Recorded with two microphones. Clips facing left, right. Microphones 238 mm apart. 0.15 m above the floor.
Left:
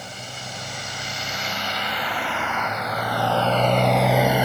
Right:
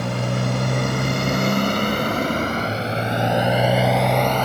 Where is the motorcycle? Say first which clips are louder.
Right 15 dB; 70° right (ahead or behind); by 4.5 s 10° left (ahead or behind).